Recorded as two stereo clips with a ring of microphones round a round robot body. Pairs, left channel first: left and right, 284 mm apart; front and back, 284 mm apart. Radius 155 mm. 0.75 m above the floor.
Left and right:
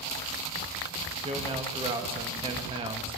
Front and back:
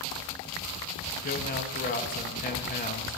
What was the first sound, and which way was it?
A man speaking, 30° right.